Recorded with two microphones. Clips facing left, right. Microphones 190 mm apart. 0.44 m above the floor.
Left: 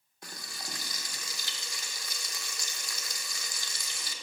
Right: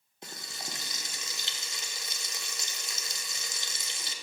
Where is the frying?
20° right (ahead or behind), 0.6 m.